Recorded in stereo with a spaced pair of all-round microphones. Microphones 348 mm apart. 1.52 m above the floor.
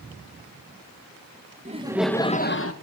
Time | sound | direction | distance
1.6 | laughter | 20° right (ahead or behind) | 1.3 m